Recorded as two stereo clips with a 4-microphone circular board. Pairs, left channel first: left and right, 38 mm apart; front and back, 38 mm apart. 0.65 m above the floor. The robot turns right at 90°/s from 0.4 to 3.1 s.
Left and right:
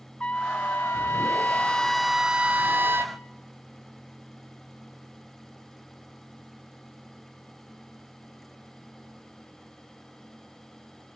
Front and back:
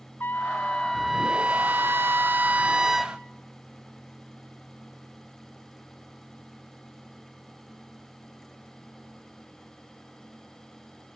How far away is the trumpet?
About 1.4 m.